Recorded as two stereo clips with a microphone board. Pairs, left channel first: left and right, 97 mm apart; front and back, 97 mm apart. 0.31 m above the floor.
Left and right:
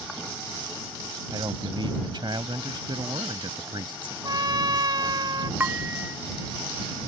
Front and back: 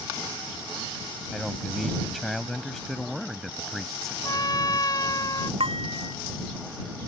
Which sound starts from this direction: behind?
Dishes clattering, at 5.6 s.